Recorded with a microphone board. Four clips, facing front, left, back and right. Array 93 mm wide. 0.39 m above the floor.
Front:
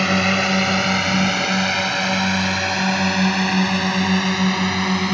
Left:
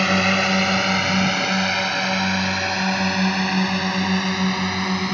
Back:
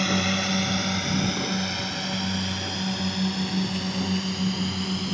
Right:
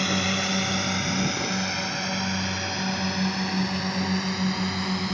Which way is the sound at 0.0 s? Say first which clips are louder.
Left 7 dB, front 7 dB; 55° left.